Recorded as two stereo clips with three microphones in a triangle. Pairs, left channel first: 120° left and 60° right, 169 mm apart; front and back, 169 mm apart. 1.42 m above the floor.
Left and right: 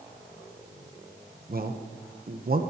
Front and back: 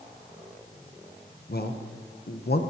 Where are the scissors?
I don't hear scissors.